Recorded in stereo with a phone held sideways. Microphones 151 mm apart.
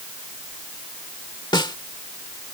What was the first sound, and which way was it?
A snare drum, 25° left (ahead or behind).